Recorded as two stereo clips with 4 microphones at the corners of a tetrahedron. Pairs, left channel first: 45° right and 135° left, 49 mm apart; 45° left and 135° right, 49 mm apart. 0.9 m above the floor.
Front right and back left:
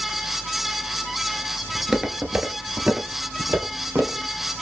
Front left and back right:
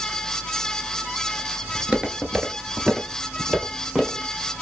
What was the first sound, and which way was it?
Footsteps, 140° right.